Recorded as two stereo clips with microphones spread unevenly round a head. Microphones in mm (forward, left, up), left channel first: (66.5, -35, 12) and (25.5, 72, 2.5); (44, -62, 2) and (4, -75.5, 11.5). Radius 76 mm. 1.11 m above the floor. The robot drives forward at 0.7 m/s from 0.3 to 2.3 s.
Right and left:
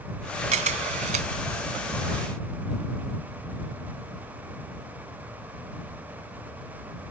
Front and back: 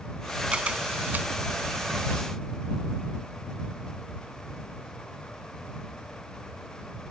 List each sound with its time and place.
0.5 s a camera shutter: 135° left; by 1.3 s 150° left